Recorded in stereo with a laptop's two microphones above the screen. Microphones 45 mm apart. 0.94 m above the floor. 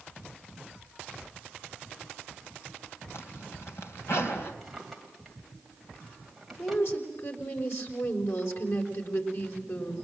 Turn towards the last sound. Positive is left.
turn(degrees=65)  # may be behind; listen again after turning